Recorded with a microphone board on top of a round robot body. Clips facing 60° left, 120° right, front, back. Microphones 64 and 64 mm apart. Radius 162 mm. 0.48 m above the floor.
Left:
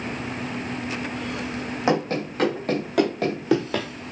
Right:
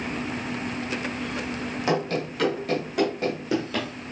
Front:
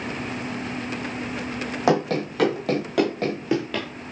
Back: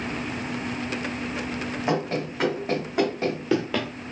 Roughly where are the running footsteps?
Ahead.